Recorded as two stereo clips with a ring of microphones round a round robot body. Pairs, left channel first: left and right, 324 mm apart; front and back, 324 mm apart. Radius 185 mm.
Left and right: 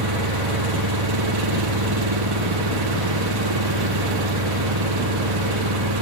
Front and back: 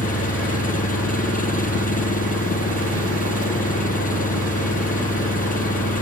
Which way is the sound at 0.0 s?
65° right.